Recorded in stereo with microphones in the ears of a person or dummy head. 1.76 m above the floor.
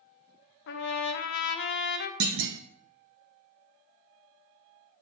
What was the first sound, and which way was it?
A trumpet, 65° left (ahead or behind).